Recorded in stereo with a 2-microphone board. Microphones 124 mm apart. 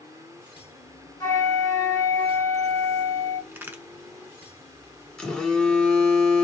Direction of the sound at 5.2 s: 5° left (ahead or behind).